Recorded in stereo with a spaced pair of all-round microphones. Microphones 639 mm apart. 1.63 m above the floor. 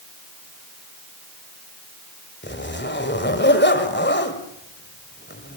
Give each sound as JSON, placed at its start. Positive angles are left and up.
{"t": 2.4, "sound": "a zipper", "side_deg": 15, "distance_m": 2.5}